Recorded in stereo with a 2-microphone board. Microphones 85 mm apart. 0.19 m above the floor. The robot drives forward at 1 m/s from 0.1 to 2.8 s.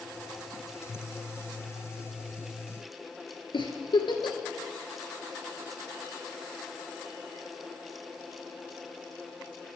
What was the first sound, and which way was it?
A giggle, 75° left (ahead or behind).